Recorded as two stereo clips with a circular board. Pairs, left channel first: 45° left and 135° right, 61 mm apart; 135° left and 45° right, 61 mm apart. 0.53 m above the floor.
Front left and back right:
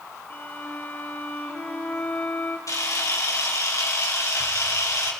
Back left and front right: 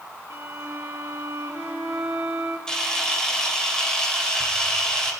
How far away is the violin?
About 1.9 m.